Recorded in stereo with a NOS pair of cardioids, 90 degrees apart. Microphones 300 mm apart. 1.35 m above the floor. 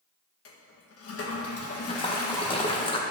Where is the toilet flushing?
50° left, 1.7 m.